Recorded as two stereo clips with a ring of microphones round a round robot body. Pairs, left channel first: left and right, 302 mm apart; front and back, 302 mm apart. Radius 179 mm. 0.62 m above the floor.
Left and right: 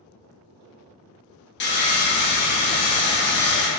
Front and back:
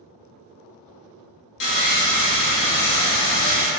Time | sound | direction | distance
1.6 | sawing | 40° left | 0.7 m